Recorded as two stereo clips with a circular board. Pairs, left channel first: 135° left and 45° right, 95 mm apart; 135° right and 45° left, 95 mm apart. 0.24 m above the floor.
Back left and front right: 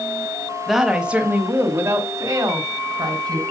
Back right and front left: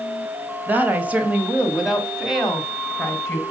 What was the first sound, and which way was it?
A woman speaking, 45° left.